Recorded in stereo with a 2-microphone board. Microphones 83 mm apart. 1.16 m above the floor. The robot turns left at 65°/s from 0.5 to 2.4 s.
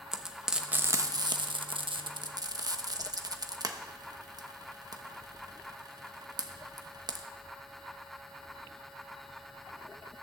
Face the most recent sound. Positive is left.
turn(degrees=-50)  # may be behind; listen again after turning